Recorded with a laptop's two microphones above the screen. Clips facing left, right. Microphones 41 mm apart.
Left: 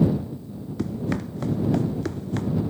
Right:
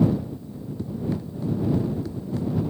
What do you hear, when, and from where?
0.8 s running footsteps: 70° left (ahead or behind); by 2.5 s 60° left (ahead or behind)